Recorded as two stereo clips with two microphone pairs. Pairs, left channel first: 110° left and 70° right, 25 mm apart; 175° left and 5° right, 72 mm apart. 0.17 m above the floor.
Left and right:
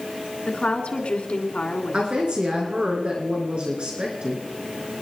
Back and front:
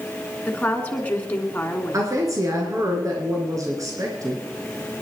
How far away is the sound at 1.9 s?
About 2.5 m.